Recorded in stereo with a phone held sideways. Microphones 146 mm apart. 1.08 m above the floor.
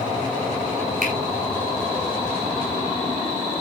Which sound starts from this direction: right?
A finger snap, at 1.0 s.